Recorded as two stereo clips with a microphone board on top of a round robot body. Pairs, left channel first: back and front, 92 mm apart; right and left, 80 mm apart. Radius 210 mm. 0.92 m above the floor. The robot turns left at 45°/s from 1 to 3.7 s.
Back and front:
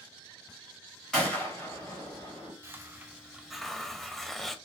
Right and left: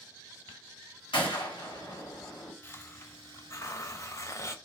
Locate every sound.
1.1 s a gunshot: 95° right, 2.0 m; by 2.5 s 155° right, 2.0 m
2.6 s a hiss: 45° right, 0.8 m; by 4.5 s 95° right, 0.8 m